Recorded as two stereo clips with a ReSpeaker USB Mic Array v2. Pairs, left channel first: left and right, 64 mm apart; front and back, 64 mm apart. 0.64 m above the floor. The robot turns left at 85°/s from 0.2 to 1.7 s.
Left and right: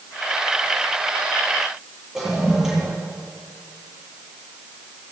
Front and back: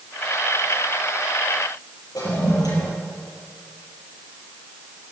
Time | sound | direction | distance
2.1 | a toilet flushing | 5° right | 7.5 m